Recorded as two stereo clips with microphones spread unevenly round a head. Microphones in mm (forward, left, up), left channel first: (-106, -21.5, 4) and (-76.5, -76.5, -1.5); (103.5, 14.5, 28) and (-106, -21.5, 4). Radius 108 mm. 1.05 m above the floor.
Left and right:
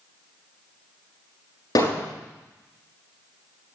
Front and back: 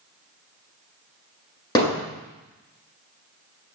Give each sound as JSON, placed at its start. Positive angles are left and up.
{"t": 1.8, "sound": "hammering", "azimuth_deg": 80, "distance_m": 8.0}